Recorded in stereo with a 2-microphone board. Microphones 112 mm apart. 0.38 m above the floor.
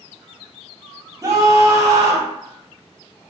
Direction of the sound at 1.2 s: 30° right (ahead or behind).